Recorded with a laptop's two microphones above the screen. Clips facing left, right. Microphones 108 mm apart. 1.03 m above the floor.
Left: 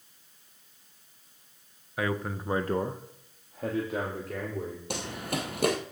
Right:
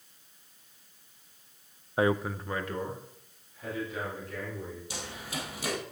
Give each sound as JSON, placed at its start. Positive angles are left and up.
{"t": 2.0, "sound": "a man speaking", "side_deg": -30, "distance_m": 0.8}
{"t": 4.9, "sound": "running footsteps", "side_deg": 60, "distance_m": 2.0}